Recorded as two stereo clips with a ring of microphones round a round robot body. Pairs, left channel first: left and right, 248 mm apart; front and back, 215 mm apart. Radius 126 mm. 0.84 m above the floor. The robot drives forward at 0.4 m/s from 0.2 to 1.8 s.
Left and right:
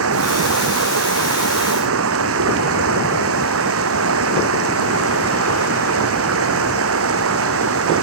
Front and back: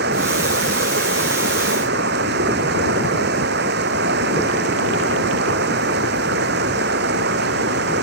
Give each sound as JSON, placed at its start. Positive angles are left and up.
{"t": 0.0, "sound": "running water", "azimuth_deg": -125}